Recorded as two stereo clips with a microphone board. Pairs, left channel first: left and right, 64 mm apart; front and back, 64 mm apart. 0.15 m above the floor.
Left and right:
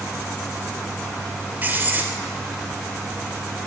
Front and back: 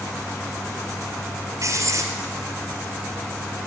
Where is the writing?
155° right, 2 m.